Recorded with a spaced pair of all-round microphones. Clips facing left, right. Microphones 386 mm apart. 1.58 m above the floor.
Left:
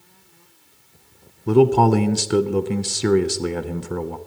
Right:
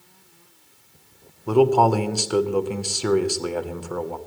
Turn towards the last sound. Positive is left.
turn(degrees=35)  # may be behind; listen again after turning